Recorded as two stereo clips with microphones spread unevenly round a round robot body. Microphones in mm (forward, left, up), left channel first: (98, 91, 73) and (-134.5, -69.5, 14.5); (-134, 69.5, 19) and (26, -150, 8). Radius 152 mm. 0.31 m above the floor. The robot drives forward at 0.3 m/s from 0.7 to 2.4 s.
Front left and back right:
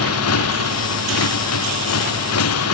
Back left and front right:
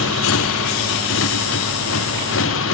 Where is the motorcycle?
75° left.